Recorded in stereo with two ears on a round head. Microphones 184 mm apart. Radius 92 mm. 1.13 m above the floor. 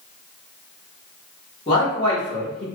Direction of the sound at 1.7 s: 25° left (ahead or behind).